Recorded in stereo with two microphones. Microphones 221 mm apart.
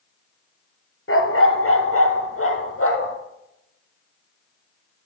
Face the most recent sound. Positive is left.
turn(degrees=70)  # may be behind; listen again after turning